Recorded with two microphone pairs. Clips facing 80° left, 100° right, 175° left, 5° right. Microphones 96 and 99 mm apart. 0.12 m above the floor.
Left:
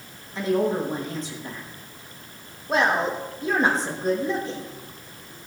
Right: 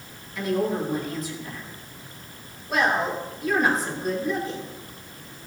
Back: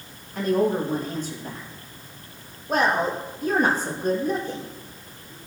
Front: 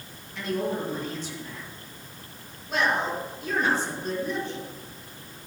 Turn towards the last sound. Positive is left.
turn(degrees=140)